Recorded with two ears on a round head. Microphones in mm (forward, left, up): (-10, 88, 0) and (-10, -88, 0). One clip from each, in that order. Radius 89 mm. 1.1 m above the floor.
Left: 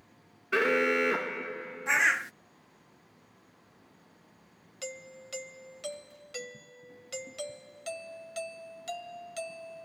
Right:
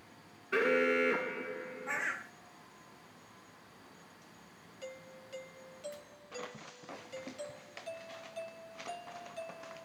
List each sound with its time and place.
0.5 s an alarm: 20° left (ahead or behind)
1.9 s a bird: 60° left (ahead or behind)
4.8 s a doorbell: 55° left (ahead or behind)